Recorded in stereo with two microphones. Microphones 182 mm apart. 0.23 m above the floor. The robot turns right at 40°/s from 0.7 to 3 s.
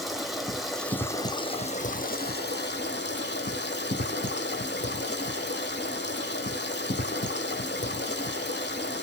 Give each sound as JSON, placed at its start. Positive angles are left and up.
{"t": 0.0, "sound": "running water", "azimuth_deg": 0, "distance_m": 0.8}